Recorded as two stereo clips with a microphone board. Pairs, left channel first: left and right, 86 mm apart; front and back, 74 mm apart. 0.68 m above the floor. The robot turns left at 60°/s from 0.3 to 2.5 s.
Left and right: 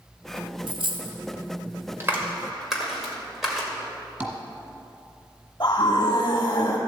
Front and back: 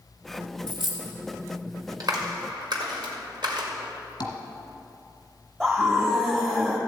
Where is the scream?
115° left, 1.2 m.